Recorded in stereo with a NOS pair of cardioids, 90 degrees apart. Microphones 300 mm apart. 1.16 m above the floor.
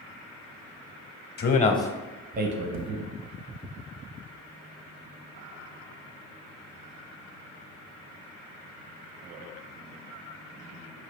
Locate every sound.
1.4 s a man speaking: 35° left, 0.9 m; by 3.0 s 65° right, 0.9 m
2.7 s tapping: 65° right, 0.8 m